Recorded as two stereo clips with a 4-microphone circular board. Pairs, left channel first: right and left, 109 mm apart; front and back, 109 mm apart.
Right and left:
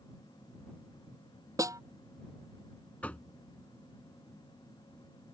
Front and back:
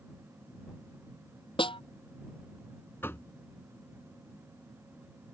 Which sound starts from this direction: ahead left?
A snare drum, at 1.6 s.